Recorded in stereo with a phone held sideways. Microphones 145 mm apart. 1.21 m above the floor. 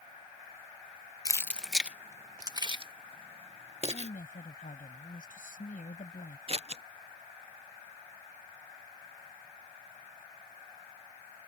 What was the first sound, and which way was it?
Keys jangling, 25° left (ahead or behind).